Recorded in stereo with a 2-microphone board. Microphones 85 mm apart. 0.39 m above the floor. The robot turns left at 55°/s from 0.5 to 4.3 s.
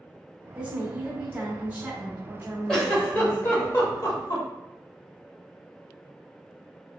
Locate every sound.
0.6 s a woman speaking: 15° right (ahead or behind), 0.9 m; by 3.7 s 15° left (ahead or behind), 0.9 m
2.7 s a giggle: 5° left (ahead or behind), 1.0 m; by 4.5 s 50° left (ahead or behind), 1.0 m